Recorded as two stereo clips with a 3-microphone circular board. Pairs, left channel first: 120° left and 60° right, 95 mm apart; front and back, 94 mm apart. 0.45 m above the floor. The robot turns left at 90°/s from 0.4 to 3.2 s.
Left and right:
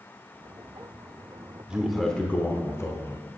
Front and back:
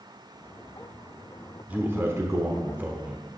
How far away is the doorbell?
No doorbell in this recording.